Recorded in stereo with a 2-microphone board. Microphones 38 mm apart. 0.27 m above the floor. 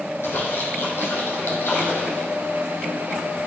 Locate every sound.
0.2 s a splash: 70° left (ahead or behind), 4.5 m